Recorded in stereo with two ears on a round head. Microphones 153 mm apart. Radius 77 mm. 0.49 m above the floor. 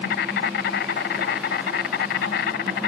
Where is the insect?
70° left (ahead or behind).